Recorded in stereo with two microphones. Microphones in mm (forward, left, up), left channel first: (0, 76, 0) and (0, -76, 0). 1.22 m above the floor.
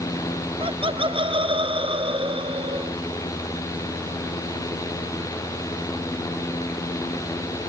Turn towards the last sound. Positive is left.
turn(degrees=-35)  # may be behind; listen again after turning